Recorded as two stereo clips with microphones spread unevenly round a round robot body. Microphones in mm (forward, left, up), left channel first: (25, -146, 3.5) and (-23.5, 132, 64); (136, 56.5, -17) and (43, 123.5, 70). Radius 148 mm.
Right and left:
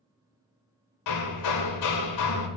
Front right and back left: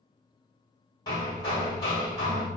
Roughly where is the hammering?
Right.